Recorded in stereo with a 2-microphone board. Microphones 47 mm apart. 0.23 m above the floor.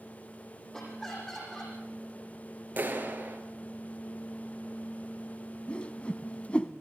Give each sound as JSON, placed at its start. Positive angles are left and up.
{"t": 0.7, "sound": "laughter", "side_deg": 15, "distance_m": 9.5}
{"t": 2.8, "sound": "a clap", "side_deg": -40, "distance_m": 3.0}
{"t": 5.7, "sound": "a whoosh", "side_deg": 25, "distance_m": 0.6}